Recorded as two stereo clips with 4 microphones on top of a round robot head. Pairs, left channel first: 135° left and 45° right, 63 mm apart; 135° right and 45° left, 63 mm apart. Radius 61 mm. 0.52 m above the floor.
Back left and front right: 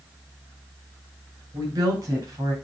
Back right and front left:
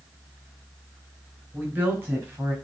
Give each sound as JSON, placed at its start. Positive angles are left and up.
{"t": 1.5, "sound": "a woman speaking", "azimuth_deg": -15, "distance_m": 4.5}